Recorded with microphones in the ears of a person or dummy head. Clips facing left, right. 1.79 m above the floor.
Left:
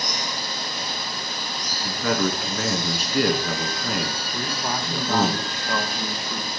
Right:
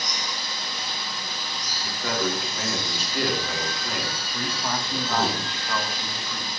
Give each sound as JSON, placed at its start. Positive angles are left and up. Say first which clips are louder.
{"t": 0.0, "sound": "running water", "louder": "left 4 dB", "side_deg": 40, "distance_m": 1.0}
{"t": 1.7, "sound": "a man speaking", "louder": "left 5 dB", "side_deg": 50, "distance_m": 2.0}
{"t": 4.3, "sound": "a man speaking", "louder": "even", "side_deg": 15, "distance_m": 1.2}